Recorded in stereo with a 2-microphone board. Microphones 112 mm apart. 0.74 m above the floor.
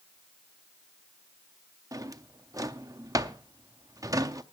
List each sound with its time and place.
1.9 s a drawer: 35° right (ahead or behind), 0.6 m